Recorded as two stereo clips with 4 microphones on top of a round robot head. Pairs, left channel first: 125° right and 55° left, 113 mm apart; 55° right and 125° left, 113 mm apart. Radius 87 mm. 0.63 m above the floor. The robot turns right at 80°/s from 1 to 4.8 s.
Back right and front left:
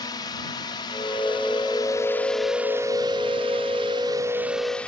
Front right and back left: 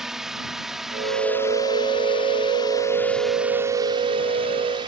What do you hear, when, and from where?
0.0 s a drone: 150° right; by 4.9 s 155° left